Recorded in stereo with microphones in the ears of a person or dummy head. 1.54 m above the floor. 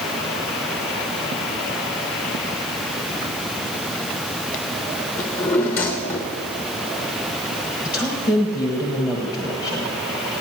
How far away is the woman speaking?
About 1.3 m.